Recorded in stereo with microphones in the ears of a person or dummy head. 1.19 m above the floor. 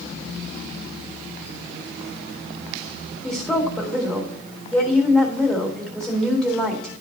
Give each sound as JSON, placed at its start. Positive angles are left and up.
{"t": 3.2, "sound": "a woman speaking", "side_deg": 0, "distance_m": 1.9}